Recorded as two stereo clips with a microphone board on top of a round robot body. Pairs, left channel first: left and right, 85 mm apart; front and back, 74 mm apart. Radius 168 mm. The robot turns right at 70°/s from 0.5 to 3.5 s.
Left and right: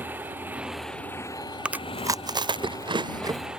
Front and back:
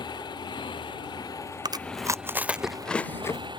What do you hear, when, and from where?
0.0 s a motorcycle: 20° right; by 3.6 s 170° right
1.6 s chewing: 165° right; by 3.5 s 40° right